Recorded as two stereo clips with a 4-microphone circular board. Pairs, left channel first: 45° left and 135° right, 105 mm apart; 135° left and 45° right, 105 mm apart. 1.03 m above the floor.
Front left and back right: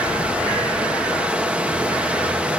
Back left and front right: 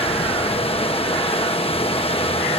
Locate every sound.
0.0 s running water: 150° left, 1.1 m